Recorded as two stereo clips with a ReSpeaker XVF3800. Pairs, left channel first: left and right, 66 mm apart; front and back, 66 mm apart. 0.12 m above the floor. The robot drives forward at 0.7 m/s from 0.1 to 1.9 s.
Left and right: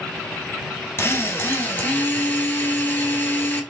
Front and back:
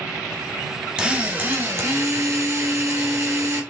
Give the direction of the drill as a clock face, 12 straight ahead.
8 o'clock.